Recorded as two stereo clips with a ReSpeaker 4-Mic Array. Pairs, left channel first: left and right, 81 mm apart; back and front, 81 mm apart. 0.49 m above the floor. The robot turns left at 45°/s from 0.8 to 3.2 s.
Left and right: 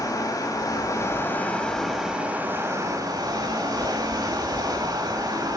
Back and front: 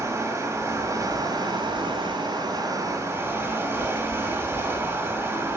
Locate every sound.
0.0 s running water: 50° left, 1.9 m; by 5.6 s 55° right, 1.9 m